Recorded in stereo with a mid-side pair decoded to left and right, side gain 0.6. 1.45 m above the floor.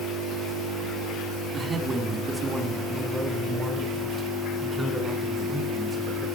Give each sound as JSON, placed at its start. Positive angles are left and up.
{"t": 1.5, "sound": "a man speaking", "azimuth_deg": -25, "distance_m": 4.5}